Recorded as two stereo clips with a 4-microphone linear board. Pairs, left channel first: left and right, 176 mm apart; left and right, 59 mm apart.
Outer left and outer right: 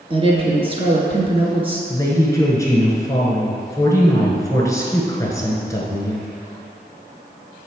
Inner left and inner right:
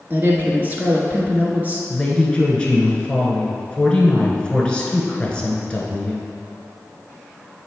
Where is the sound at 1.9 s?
20° left (ahead or behind), 1.1 m.